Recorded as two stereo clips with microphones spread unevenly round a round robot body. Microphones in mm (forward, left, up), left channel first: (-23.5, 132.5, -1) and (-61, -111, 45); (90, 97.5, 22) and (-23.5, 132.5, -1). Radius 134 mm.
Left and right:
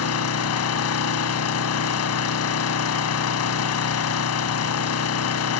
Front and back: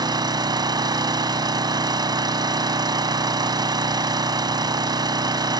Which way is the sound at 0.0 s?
105° left.